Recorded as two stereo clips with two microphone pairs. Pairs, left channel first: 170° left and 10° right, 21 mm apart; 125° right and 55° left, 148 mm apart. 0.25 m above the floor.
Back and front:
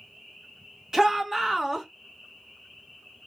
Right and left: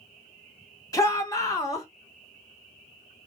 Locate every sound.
0.9 s a shout: 70° right, 2 m